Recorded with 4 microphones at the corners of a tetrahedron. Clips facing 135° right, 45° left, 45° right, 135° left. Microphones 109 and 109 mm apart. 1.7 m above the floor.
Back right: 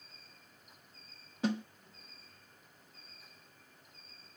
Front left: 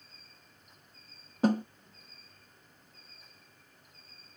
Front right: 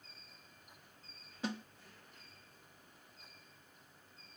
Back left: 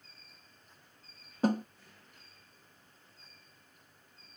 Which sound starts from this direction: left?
A snare drum, at 1.4 s.